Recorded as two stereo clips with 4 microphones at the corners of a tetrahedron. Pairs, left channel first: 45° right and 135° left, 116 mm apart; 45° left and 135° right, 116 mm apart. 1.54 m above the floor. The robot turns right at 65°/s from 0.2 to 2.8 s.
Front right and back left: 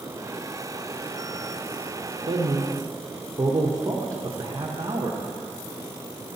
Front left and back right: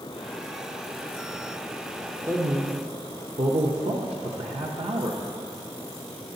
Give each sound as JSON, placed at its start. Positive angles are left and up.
{"t": 2.3, "sound": "a man speaking", "azimuth_deg": 160, "distance_m": 0.7}